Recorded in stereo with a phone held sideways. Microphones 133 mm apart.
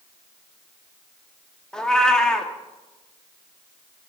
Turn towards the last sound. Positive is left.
turn(degrees=5)  # may be behind; listen again after turning